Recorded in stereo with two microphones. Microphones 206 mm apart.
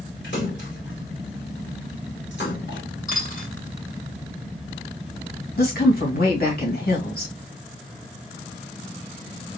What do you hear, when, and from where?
0.2 s a splash: 65° left (ahead or behind), 3 m
3.1 s a dropped coin: 45° left (ahead or behind), 2.5 m
5.6 s a woman speaking: 50° left (ahead or behind), 2.5 m